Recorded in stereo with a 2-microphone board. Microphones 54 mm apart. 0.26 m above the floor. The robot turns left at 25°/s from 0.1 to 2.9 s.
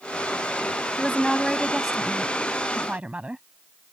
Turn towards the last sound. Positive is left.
turn(degrees=-30)